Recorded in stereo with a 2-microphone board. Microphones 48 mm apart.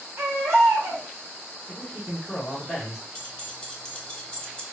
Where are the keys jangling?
20° left (ahead or behind), 0.6 m.